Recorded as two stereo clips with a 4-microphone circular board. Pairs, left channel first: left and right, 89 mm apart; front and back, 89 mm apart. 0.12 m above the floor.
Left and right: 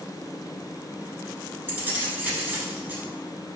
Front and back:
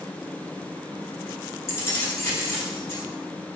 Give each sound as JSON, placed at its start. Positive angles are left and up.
{"t": 1.7, "sound": "keys jangling", "azimuth_deg": -35, "distance_m": 1.2}